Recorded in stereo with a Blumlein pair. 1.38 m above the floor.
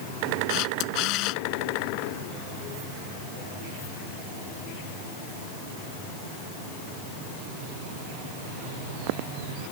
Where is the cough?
I don't hear a cough.